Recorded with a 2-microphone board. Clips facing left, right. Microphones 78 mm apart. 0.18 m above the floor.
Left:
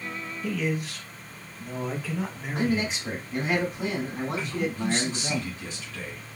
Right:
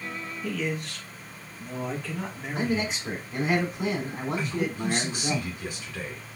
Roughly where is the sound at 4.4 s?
Centre.